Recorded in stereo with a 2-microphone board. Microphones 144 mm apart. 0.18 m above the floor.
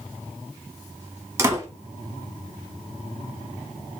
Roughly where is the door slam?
Centre.